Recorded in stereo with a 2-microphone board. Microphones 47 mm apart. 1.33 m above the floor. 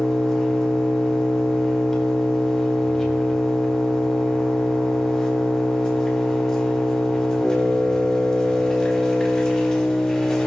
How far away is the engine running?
About 2.5 m.